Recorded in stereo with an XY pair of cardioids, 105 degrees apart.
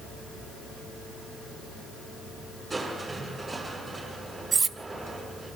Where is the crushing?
25° right, 8 m.